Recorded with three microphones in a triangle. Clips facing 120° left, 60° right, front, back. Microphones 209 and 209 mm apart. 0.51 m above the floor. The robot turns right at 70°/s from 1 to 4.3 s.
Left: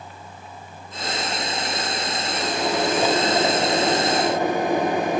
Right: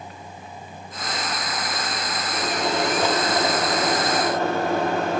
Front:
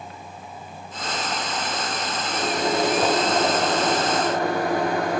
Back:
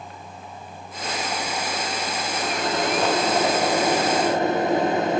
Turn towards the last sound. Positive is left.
turn(degrees=165)